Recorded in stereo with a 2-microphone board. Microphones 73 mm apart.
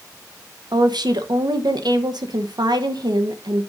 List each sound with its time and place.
0.7 s a woman speaking: 80° right, 1.0 m